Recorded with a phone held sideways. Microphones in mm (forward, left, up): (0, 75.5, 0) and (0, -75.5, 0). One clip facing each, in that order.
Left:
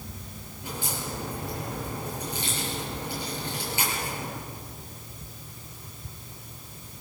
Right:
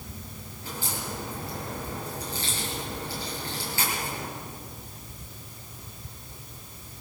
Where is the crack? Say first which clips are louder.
Left 1 dB; 20° left (ahead or behind), 9.5 m.